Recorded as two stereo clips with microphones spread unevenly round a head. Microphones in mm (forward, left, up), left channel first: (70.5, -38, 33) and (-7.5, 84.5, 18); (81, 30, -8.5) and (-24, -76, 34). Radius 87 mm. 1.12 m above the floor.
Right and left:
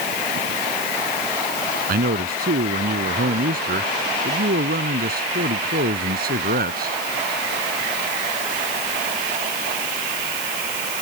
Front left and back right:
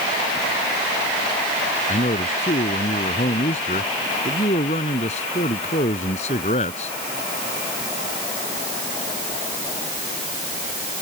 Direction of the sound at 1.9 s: 100° left.